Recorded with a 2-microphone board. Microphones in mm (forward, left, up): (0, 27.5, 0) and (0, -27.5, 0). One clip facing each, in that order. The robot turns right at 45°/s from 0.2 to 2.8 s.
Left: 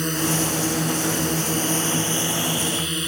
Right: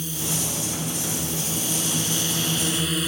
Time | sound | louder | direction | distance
0.0 | a drone | left 7 dB | 65° left | ?